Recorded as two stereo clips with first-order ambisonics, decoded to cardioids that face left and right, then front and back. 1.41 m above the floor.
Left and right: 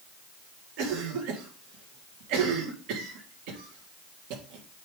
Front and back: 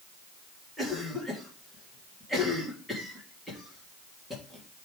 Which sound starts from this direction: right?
A cough, at 0.8 s.